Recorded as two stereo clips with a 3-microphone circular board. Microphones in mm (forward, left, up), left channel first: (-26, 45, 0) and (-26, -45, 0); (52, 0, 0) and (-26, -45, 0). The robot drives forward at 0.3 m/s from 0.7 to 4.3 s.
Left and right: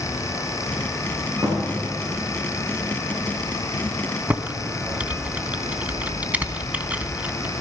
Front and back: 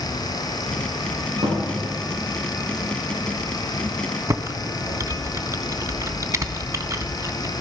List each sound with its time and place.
1.4 s a thud: 145° right, 5.5 m
4.3 s typing on a keyboard: 150° right, 0.5 m